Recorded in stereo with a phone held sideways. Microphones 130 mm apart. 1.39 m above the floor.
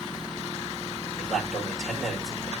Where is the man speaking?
Centre (ahead or behind), 7.5 m.